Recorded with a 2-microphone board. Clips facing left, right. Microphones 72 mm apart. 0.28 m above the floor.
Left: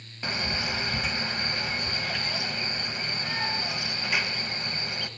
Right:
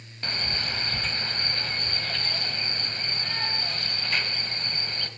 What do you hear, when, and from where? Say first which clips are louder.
0.2 s a man speaking: left 2 dB; 10° left (ahead or behind), 1.3 m